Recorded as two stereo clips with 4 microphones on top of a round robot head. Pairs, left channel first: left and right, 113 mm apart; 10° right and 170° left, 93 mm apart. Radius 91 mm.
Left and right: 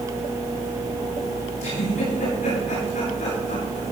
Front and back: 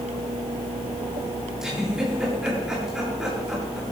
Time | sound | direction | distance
1.6 | a giggle | 90° left | 9.5 m